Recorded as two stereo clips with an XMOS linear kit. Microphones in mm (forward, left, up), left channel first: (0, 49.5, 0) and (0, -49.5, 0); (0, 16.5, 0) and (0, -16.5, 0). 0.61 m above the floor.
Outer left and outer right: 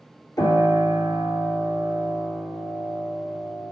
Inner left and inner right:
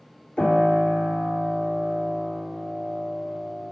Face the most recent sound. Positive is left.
turn(degrees=40)  # may be behind; listen again after turning